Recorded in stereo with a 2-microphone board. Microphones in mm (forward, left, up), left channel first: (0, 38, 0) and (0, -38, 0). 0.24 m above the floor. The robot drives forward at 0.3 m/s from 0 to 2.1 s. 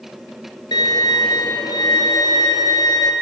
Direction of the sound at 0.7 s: 65° left (ahead or behind).